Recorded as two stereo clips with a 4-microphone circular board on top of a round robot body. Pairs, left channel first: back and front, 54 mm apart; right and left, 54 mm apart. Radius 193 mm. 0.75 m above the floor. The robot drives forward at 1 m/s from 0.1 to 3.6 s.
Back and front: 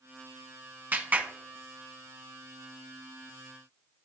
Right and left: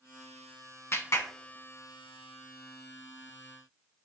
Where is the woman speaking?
I don't hear a woman speaking.